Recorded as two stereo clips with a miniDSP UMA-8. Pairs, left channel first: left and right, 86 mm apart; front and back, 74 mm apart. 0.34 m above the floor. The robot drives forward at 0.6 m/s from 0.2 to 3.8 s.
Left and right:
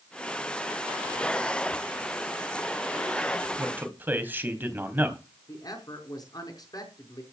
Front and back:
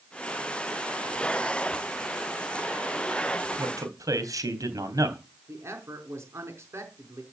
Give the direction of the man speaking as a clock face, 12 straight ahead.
5 o'clock.